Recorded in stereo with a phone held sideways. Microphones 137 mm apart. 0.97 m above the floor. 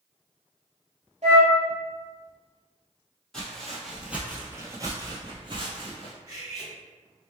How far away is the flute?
About 1.4 m.